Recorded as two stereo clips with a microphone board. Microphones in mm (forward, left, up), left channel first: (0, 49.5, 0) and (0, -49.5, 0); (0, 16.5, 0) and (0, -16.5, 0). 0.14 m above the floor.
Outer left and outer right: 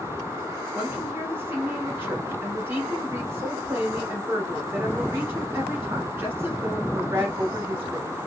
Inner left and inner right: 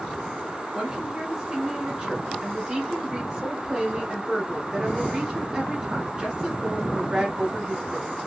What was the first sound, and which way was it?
A woman speaking, 20° right (ahead or behind).